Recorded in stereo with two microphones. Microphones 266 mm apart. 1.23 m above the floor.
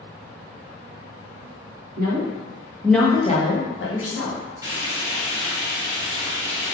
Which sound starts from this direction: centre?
Frying, at 4.6 s.